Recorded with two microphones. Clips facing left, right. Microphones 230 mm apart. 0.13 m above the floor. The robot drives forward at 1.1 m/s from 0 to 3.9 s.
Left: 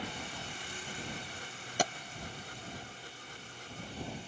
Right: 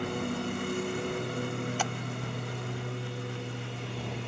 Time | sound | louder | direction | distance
0.0 | a lawn mower | right 12 dB | 60° right (ahead or behind) | ?
1.8 | tapping | even | 40° left (ahead or behind) | ?